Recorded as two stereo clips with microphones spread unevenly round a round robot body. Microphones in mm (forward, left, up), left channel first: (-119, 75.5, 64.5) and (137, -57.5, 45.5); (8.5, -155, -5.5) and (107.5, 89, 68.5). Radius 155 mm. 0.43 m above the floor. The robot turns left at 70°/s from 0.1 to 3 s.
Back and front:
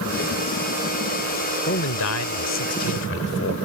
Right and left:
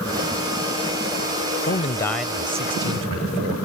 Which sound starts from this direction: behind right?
A man speaking, at 1.7 s.